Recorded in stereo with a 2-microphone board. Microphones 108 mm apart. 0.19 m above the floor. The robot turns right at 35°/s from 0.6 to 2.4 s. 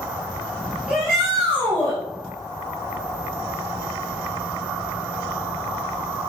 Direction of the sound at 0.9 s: 10° right.